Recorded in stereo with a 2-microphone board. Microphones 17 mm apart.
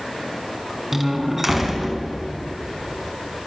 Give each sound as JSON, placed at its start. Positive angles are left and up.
{"t": 0.9, "sound": "a door slam", "side_deg": -15, "distance_m": 3.5}